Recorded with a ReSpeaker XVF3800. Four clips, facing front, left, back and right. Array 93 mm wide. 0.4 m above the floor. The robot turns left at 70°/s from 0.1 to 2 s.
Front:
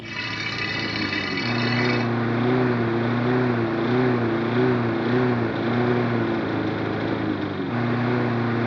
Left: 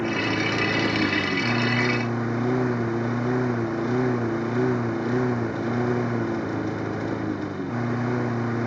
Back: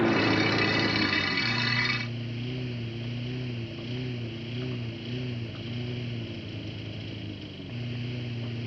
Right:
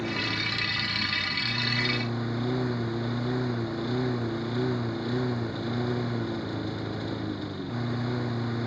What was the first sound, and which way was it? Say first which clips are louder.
A lawn mower: left 6 dB, back 7 dB; 150° left.